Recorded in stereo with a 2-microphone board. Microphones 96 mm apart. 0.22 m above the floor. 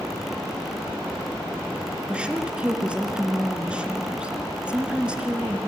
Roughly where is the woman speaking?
Centre.